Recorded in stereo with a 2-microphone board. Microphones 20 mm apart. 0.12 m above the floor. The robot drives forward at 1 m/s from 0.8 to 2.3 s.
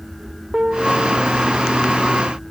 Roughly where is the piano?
Right.